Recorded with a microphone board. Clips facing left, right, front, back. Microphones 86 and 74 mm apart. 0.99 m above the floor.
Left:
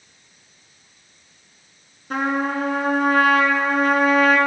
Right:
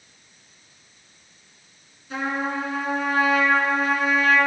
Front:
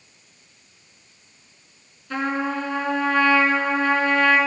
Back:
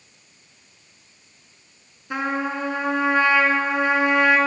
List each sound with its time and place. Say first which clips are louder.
2.1 s a trumpet: left 4 dB, even; 110° left, 1.7 m